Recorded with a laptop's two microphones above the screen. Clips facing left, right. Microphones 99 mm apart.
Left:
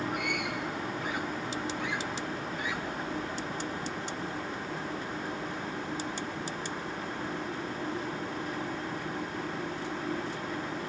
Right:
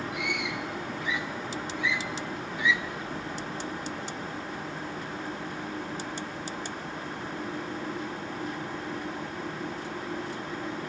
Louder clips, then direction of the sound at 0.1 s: Even; 50° left (ahead or behind).